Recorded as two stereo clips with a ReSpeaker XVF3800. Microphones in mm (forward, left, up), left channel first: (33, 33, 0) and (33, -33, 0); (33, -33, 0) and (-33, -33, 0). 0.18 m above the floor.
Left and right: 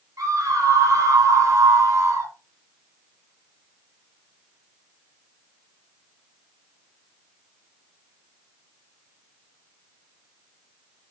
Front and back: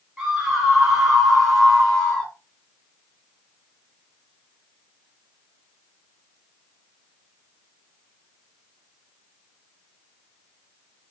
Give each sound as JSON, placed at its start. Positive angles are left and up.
{"t": 0.2, "sound": "a scream", "azimuth_deg": -100, "distance_m": 2.5}